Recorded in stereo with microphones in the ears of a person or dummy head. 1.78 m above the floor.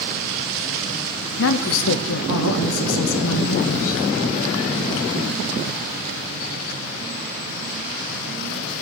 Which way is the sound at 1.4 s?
75° left (ahead or behind).